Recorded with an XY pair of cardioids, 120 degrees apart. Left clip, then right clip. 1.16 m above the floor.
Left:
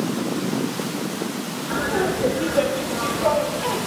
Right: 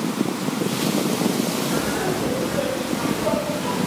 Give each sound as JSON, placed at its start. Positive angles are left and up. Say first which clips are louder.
{"t": 1.7, "sound": "laughter", "louder": "left 1 dB", "azimuth_deg": 70, "distance_m": 2.5}